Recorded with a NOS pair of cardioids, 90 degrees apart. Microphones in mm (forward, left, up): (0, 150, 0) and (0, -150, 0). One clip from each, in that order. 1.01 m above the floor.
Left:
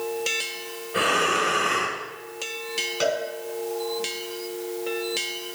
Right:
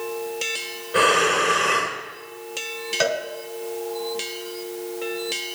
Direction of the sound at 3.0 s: 35° right.